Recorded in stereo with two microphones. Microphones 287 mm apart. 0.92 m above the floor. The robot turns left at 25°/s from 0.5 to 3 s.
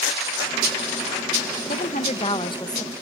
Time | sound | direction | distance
1.7 | a woman speaking | 45° left | 0.9 m